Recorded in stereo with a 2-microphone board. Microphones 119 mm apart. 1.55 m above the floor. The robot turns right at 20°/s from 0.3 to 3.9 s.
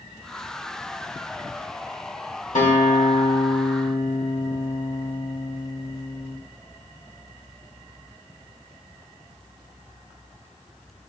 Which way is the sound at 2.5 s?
80° left.